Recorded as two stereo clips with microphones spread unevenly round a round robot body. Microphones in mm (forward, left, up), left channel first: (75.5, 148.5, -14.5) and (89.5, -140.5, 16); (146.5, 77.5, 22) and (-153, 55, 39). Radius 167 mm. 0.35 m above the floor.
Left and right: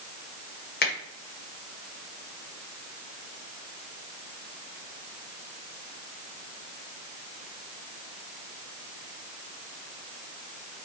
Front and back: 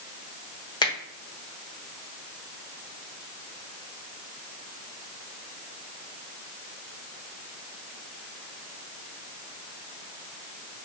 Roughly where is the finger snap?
Left.